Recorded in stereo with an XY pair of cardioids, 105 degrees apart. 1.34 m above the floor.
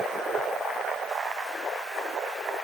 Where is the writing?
No writing in this recording.